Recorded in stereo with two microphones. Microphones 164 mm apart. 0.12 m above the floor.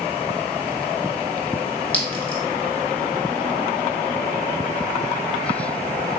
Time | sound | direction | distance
1.9 | a clink | 10° left (ahead or behind) | 1.0 m